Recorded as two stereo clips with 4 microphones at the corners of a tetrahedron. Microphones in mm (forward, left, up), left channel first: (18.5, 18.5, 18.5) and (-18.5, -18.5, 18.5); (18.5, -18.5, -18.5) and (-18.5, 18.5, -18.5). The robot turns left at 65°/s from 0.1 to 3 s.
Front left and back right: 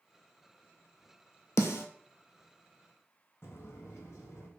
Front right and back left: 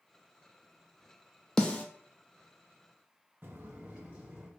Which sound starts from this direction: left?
Footsteps, at 3.4 s.